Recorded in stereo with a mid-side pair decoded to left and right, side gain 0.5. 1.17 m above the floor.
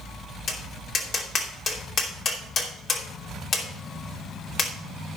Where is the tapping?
50° left, 2.5 m.